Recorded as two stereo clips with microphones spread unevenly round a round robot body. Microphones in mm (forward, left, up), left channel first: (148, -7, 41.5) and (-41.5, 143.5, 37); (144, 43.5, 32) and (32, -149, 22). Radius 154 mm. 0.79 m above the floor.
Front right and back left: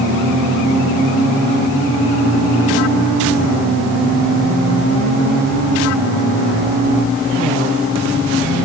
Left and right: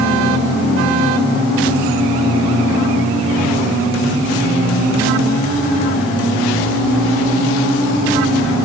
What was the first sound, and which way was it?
Only background noise.